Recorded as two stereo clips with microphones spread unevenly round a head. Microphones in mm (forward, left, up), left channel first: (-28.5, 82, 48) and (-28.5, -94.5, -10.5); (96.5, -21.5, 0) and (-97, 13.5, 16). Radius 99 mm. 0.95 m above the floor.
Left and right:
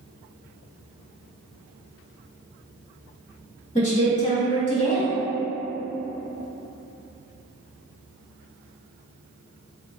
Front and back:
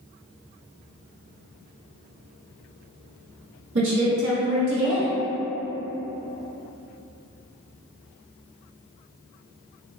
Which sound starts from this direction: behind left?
A woman speaking, at 3.8 s.